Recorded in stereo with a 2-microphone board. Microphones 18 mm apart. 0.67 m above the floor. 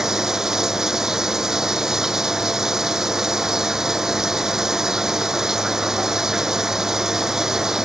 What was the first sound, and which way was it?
Running water, 35° right (ahead or behind).